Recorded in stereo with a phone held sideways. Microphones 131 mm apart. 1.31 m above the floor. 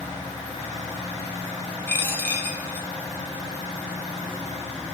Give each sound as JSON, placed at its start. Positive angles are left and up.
{"t": 1.9, "sound": "a dropped coin", "side_deg": 15, "distance_m": 0.8}